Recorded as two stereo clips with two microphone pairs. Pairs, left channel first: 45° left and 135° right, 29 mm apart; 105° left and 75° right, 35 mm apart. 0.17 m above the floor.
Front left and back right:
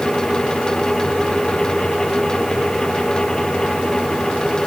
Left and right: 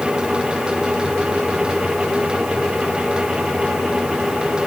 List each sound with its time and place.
Only background noise.